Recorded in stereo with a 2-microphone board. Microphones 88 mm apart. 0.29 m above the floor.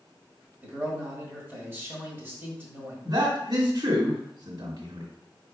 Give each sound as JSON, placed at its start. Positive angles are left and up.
{"t": 0.6, "sound": "a man speaking", "side_deg": -25, "distance_m": 1.5}
{"t": 3.0, "sound": "a man speaking", "side_deg": -60, "distance_m": 1.9}